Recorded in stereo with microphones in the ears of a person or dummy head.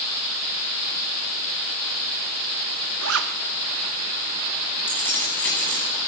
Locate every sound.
3.0 s a zipper: 80° right, 2 m
4.9 s keys jangling: 5° left (ahead or behind), 10 m